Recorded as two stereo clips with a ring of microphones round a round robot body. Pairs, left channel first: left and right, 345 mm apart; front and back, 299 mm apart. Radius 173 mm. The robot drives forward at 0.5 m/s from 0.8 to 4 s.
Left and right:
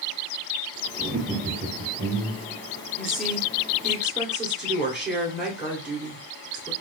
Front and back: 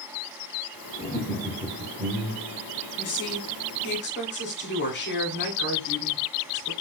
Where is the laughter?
45° right, 0.7 m; by 2.6 s 155° right, 0.9 m.